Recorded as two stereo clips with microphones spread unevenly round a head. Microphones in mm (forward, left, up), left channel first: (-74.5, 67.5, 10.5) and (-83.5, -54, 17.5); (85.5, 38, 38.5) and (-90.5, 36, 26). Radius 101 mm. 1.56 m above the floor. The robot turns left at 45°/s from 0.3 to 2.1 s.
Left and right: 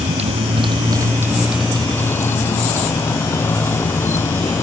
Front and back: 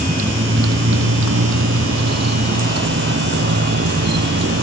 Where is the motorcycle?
125° right; by 4.6 s 155° left.